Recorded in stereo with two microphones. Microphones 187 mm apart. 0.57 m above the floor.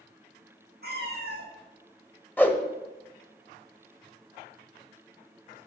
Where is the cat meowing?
55° right (ahead or behind), 2.5 m.